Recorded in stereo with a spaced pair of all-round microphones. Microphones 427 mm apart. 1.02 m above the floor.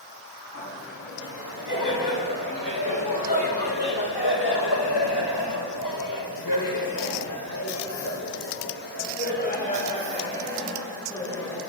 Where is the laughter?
45° left (ahead or behind), 8.5 m; by 11.6 s 5° left (ahead or behind), 8.5 m.